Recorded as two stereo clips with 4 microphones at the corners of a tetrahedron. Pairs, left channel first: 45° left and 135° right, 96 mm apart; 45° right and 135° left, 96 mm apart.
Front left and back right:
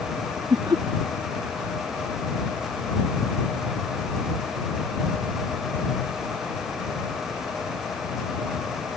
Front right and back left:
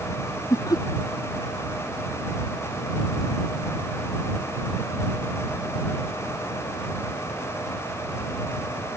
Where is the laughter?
95° right.